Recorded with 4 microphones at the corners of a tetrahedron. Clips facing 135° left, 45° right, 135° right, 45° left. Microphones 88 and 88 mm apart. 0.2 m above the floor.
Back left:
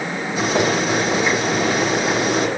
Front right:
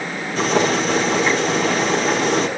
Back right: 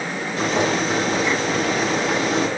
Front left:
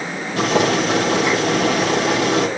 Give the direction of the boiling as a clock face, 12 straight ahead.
10 o'clock.